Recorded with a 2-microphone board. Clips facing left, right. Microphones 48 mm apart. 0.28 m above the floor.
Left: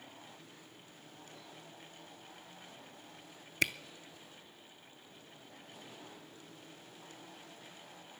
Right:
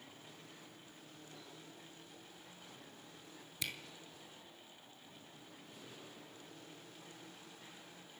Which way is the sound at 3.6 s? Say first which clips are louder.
Left 11 dB; 60° left (ahead or behind).